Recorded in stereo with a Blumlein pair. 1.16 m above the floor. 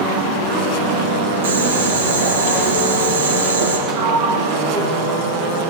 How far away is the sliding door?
About 4.5 m.